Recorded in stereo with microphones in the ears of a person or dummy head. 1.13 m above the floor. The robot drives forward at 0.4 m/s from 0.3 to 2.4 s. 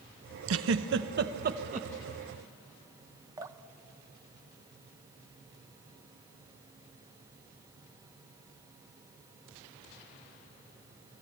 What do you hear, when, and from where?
0.5 s a giggle: 70° right (ahead or behind), 0.7 m; by 1.9 s 40° right (ahead or behind), 1.0 m
3.4 s dripping: 15° right (ahead or behind), 0.6 m